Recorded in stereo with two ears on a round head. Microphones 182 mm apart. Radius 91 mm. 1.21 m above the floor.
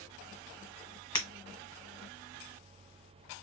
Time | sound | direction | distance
1.1 | breaking glass | 20° left (ahead or behind) | 1.1 m